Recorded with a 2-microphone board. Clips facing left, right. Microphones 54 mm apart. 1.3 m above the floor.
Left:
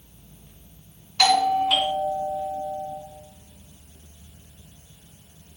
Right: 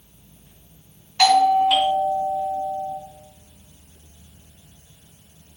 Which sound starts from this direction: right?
A doorbell, at 1.2 s.